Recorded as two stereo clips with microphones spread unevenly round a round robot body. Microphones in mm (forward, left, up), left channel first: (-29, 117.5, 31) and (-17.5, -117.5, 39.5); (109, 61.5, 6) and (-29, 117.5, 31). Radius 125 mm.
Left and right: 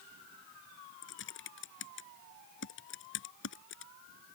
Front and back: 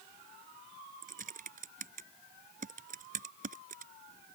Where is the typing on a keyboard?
130° left.